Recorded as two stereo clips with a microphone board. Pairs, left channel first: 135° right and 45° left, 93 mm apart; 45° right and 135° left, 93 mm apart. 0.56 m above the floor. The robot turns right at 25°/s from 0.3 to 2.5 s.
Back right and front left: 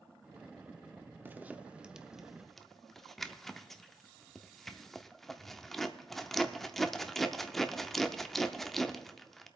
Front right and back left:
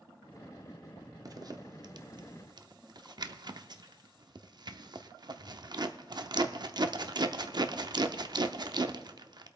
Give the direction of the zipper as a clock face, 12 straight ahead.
8 o'clock.